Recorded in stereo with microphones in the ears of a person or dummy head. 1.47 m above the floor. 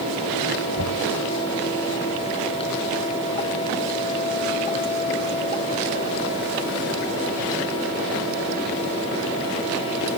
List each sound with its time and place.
0.8 s knocking: 80° left